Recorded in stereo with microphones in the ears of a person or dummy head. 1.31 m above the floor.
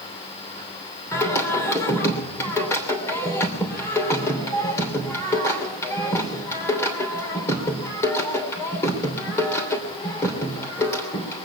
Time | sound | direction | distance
1.1 | singing | 15° left (ahead or behind) | 3 m